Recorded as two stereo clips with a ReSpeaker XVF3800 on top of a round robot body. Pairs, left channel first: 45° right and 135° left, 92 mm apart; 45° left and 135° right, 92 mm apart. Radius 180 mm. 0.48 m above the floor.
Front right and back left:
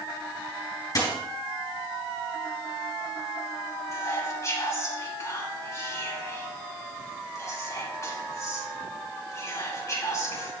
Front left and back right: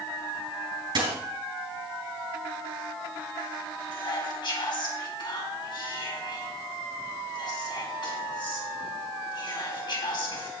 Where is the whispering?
10° left, 4.5 m.